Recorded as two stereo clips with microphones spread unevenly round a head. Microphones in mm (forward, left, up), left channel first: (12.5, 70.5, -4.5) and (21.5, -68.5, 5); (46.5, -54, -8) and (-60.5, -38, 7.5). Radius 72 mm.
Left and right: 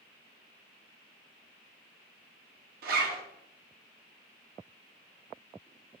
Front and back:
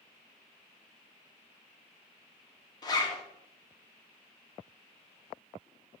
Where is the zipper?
65° right, 0.6 m.